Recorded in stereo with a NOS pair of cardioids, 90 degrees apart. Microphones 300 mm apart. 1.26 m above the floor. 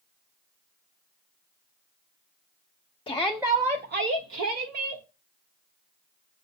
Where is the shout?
20° left, 0.6 m; by 5.0 s 70° right, 1.2 m.